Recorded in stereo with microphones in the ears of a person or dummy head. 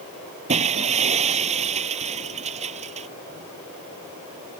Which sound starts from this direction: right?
Breaking glass, at 0.5 s.